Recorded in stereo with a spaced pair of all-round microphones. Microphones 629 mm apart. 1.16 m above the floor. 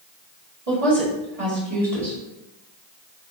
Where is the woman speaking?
60° right (ahead or behind), 1.8 m.